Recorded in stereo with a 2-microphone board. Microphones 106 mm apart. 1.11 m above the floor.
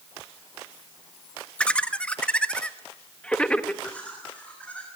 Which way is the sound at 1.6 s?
10° left (ahead or behind).